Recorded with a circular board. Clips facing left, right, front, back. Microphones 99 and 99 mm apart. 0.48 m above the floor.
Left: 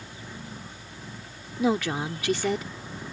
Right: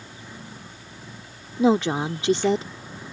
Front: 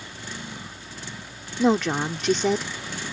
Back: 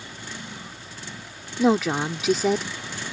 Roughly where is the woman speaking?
Right.